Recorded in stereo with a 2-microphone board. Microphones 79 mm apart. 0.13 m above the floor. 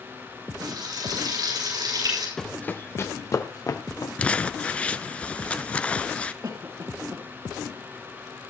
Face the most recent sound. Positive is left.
turn(degrees=-55)  # may be behind; listen again after turning